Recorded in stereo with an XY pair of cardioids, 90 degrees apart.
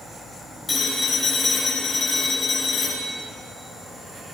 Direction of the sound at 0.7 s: 45° left.